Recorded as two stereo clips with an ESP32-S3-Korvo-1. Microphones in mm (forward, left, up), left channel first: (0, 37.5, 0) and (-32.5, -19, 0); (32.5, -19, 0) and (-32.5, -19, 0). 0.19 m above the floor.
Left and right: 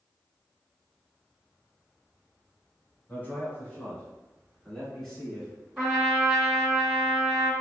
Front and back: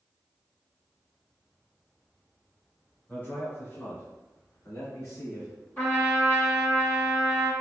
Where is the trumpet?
40° right, 1.9 m.